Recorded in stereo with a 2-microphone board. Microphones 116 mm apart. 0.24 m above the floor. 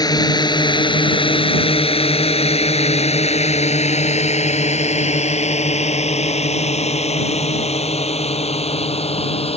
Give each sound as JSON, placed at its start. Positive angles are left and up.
{"t": 0.0, "sound": "a drone", "side_deg": 35}